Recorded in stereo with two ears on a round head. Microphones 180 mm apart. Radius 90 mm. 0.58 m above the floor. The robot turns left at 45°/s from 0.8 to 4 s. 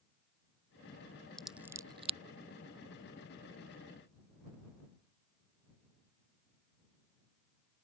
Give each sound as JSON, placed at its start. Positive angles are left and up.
{"t": 1.4, "sound": "scissors", "side_deg": 0}